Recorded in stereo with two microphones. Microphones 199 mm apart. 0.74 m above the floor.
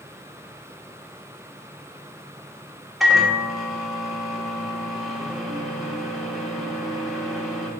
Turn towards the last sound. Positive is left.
turn(degrees=0)  # may be behind; listen again after turning